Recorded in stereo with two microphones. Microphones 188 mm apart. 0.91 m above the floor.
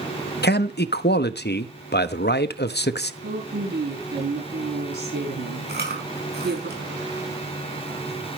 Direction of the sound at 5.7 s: 60° right (ahead or behind).